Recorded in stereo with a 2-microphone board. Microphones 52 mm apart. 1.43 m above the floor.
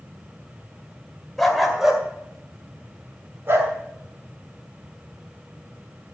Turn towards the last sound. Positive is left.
turn(degrees=-50)  # may be behind; listen again after turning